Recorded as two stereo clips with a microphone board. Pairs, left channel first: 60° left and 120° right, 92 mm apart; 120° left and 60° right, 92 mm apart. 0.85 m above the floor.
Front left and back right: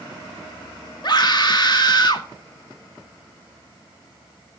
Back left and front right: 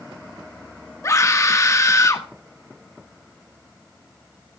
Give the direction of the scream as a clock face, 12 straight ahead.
10 o'clock.